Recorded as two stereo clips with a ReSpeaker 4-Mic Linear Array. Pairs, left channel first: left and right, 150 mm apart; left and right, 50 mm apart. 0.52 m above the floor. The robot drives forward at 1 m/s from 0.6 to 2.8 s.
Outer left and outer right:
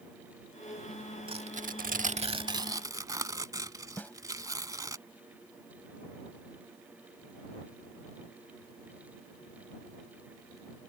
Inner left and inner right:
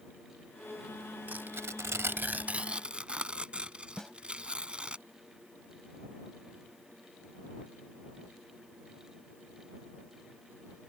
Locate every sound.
1.3 s tearing paper: 35° right (ahead or behind); by 5.0 s 25° right (ahead or behind)
4.0 s a snare drum: 10° left (ahead or behind)